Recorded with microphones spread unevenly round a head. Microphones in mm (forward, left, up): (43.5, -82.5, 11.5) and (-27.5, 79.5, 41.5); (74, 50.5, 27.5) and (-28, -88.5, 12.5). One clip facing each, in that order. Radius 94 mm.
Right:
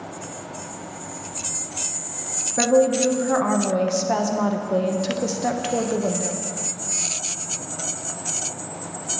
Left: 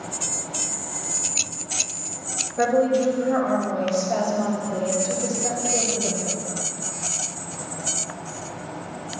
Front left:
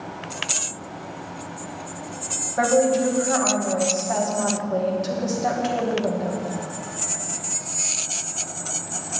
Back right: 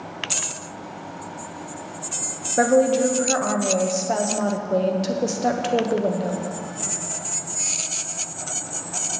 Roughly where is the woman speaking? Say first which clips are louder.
Right 2 dB, back right 2 dB; right.